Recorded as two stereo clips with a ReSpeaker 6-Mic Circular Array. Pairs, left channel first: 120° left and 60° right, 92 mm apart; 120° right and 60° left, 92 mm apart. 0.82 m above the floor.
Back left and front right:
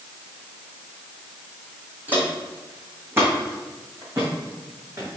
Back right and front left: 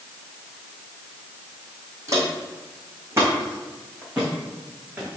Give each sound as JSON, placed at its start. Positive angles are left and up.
{"t": 2.1, "sound": "footsteps", "azimuth_deg": 10, "distance_m": 2.0}